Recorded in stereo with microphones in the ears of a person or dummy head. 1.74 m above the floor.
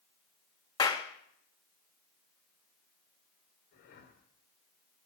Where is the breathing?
45° left (ahead or behind), 2.0 m.